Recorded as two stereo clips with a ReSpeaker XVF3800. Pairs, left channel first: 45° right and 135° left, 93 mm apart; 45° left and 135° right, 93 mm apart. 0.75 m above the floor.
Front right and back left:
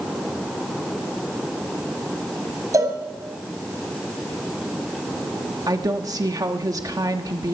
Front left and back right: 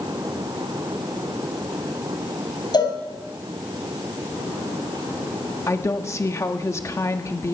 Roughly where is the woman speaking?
Left.